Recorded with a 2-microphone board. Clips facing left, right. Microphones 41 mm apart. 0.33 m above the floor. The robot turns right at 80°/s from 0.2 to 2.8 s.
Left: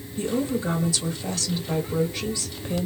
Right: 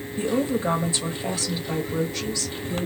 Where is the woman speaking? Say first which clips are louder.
Right 2 dB; 130° right, 0.9 m; by 2.9 s 80° left, 0.9 m.